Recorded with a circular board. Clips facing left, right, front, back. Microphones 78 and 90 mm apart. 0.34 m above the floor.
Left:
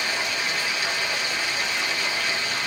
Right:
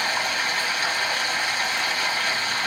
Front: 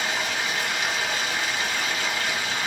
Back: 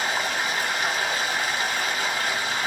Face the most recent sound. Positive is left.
turn(degrees=-140)